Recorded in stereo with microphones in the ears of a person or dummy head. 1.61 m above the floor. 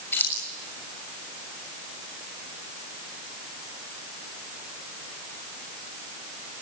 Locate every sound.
0.1 s keys jangling: 15° left (ahead or behind), 6.5 m